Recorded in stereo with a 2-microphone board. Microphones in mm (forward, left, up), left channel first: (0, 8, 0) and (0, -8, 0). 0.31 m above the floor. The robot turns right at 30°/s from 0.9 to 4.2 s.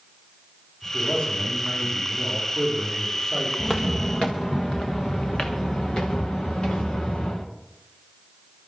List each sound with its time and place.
0.8 s a man speaking: 55° left, 9 m; by 3.5 s 135° left, 9 m
3.6 s footsteps: 55° left (ahead or behind), 2.0 m; by 7.5 s 75° left (ahead or behind), 3.5 m